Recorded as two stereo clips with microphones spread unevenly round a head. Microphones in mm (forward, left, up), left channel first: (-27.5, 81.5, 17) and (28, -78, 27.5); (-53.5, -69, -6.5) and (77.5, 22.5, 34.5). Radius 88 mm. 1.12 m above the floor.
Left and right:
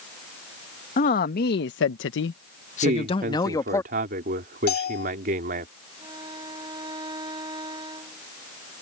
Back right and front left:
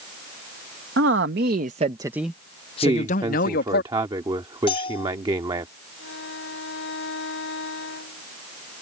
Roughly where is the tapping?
I don't hear tapping.